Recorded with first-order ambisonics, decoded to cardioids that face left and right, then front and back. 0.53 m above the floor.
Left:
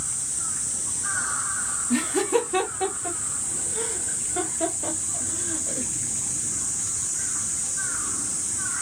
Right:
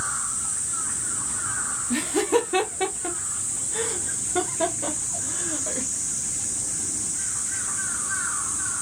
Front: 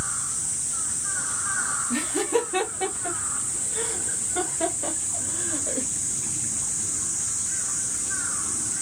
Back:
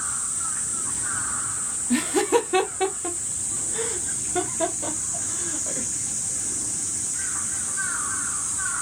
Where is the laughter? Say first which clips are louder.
Right 1 dB, back 5 dB; 170° right, 1.1 m; by 5.9 s 115° right, 2.5 m.